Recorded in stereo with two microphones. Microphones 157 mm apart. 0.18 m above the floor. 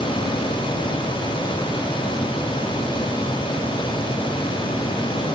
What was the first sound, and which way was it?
Only background noise.